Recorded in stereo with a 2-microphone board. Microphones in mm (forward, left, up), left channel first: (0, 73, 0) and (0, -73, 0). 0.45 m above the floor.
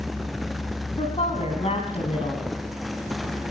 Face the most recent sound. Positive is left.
turn(degrees=45)  # may be behind; listen again after turning